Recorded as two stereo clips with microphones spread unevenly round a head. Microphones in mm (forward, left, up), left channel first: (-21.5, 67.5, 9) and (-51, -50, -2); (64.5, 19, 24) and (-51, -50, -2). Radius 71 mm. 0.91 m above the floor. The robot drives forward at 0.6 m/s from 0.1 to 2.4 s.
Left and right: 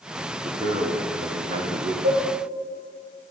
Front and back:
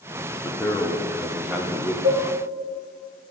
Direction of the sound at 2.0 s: 100° right.